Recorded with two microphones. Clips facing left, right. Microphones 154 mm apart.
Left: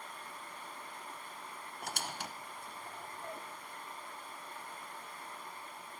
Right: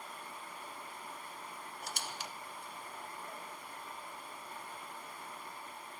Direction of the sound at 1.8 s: 55° left (ahead or behind).